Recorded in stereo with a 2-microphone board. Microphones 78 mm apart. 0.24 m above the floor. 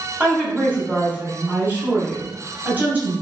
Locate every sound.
0.2 s a woman speaking: 20° right (ahead or behind), 1.4 m